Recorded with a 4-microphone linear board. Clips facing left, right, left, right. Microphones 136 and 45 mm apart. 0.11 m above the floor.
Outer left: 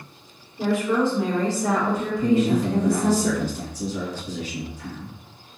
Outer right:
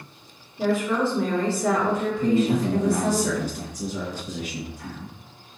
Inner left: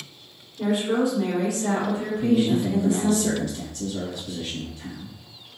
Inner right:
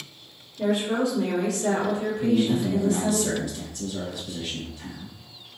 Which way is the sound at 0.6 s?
15° left (ahead or behind).